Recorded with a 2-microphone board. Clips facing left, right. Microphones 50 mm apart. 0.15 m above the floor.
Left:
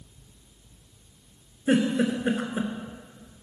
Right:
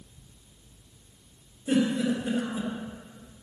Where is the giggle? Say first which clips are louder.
Left 2 dB; 55° left (ahead or behind), 1.4 m.